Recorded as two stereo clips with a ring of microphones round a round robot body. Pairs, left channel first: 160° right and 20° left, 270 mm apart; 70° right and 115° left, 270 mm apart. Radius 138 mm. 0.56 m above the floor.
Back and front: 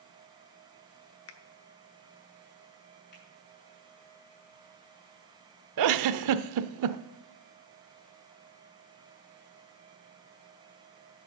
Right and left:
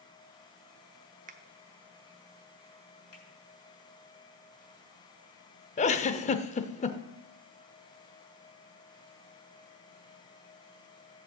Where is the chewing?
I don't hear chewing.